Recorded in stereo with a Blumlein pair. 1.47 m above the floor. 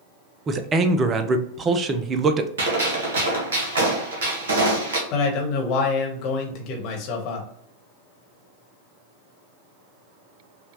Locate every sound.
0.5 s a man speaking: 20° right, 0.5 m
2.6 s a gunshot: 60° right, 1.3 m
5.1 s a man speaking: 40° left, 1.1 m